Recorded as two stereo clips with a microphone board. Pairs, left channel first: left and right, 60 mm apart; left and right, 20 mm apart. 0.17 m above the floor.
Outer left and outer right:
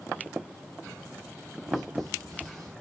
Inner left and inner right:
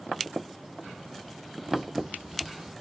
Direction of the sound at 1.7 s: 60° right (ahead or behind).